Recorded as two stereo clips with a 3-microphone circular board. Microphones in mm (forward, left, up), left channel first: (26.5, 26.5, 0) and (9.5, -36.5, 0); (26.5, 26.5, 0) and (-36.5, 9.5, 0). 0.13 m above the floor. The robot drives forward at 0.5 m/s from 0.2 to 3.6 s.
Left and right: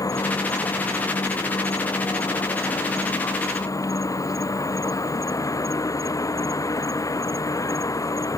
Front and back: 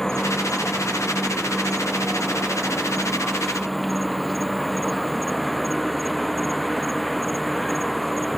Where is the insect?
100° left; by 8.4 s 105° left.